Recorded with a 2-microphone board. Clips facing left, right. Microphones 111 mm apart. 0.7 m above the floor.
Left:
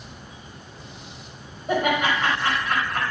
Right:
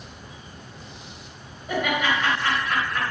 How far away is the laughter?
About 4 m.